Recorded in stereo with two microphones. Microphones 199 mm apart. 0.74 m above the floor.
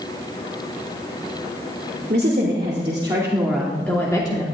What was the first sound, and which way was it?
A woman speaking, 45° right (ahead or behind).